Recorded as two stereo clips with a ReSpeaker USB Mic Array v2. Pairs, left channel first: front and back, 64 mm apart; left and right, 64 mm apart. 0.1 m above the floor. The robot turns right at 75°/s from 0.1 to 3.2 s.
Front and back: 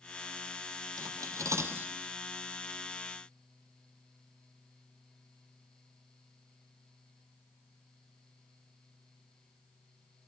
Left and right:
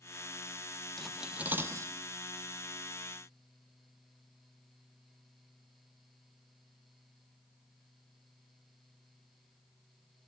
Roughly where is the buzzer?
No buzzer in this recording.